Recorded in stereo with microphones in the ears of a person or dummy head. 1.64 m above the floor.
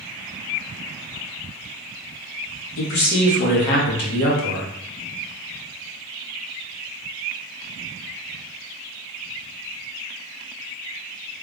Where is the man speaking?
60° left (ahead or behind), 1.2 m.